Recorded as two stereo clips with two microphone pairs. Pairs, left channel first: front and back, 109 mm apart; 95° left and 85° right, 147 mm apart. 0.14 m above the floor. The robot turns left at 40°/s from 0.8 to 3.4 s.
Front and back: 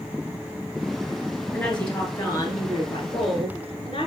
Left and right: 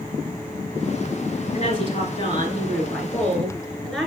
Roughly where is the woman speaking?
Left.